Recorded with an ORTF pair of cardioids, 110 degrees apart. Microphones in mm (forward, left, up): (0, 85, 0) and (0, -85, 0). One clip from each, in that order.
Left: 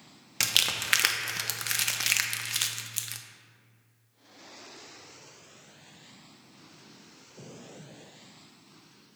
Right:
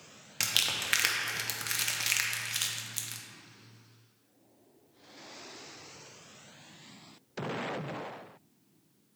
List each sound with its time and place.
0.4 s crumpling: 20° left, 0.5 m